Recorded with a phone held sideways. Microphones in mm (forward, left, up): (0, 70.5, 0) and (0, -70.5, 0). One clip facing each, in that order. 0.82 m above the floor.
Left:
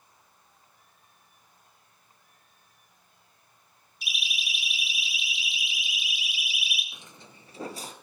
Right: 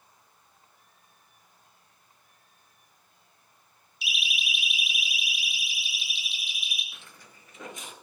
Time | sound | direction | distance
4.0 | a siren | 50° left (ahead or behind) | 4 m
6.9 | footsteps | 15° left (ahead or behind) | 0.8 m